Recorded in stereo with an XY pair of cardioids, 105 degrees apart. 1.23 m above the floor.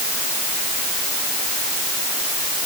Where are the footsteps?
I don't hear footsteps.